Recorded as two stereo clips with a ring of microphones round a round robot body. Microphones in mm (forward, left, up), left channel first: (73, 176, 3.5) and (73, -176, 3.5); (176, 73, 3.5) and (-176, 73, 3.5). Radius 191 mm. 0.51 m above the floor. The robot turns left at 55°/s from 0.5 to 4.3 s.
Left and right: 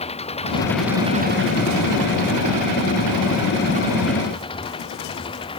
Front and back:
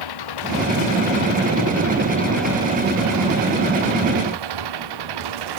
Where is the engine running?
15° left; by 5.6 s 170° left.